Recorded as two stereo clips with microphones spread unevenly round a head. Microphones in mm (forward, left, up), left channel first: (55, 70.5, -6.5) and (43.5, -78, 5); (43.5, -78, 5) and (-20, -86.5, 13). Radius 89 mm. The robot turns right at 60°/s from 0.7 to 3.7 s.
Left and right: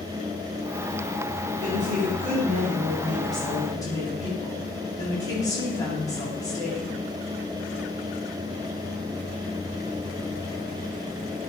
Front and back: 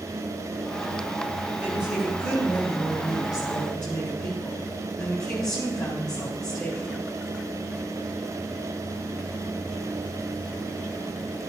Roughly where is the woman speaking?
Right.